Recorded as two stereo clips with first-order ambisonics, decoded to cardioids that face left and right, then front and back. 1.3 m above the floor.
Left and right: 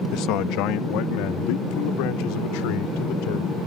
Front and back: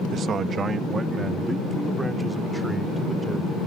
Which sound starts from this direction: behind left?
A man speaking, at 0.1 s.